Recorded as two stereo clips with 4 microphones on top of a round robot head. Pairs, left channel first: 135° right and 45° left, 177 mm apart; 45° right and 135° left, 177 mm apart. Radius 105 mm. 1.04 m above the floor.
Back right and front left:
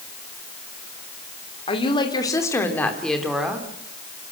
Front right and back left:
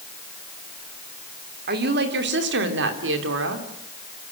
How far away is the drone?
I don't hear a drone.